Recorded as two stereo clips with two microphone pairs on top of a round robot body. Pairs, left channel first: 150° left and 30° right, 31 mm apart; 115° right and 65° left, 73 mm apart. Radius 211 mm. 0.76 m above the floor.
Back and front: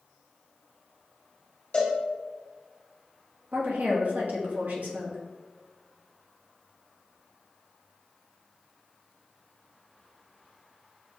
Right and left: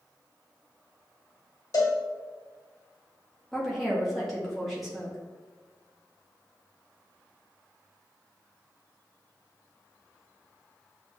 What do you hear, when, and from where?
1.7 s a cowbell: 155° right, 1.5 m
3.5 s a woman speaking: 30° right, 1.7 m